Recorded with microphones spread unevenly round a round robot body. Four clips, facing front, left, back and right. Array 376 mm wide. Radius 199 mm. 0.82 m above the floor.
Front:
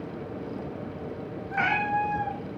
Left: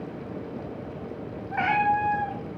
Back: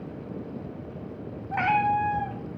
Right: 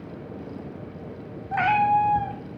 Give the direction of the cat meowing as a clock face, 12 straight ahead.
4 o'clock.